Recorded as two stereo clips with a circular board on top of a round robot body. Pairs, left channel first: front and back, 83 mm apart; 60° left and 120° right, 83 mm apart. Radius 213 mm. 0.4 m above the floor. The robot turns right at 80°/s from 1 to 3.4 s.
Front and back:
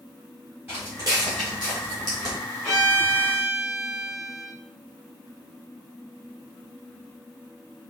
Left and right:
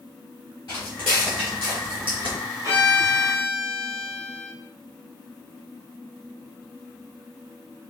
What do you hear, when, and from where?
0.7 s footsteps: 115° left, 0.5 m; by 2.4 s 115° right, 1.7 m
2.6 s a violin: 70° right, 0.7 m; by 4.5 s 10° right, 0.7 m